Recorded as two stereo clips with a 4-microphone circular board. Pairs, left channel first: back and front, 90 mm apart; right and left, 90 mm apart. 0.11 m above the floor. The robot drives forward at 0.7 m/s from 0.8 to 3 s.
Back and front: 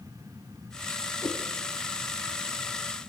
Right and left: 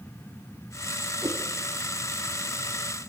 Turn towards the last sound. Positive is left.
turn(degrees=150)